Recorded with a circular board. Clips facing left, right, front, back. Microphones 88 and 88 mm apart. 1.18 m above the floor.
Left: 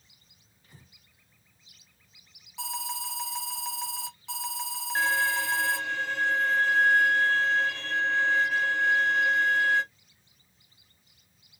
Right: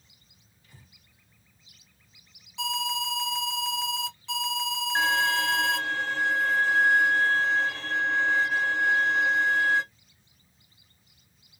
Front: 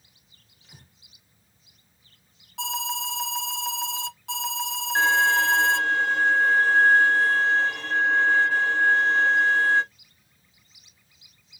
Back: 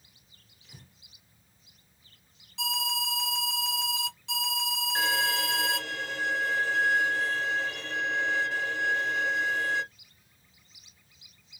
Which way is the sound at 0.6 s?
35° left.